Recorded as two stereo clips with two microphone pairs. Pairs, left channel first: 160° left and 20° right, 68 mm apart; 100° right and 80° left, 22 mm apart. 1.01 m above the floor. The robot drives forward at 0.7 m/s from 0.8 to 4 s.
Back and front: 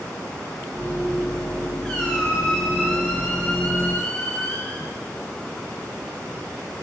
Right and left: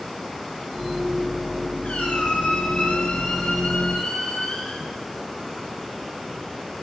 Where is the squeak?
120° right, 4 m; by 4.9 s 140° right, 4.5 m.